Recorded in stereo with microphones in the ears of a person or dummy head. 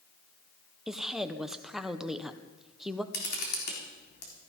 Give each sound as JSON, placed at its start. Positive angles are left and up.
{"t": 0.9, "sound": "a woman speaking", "side_deg": -5, "distance_m": 1.0}
{"t": 3.1, "sound": "a camera shutter", "side_deg": 55, "distance_m": 3.5}